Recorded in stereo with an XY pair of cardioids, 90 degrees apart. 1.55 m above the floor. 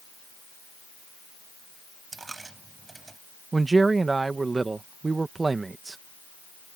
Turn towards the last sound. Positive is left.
turn(degrees=-30)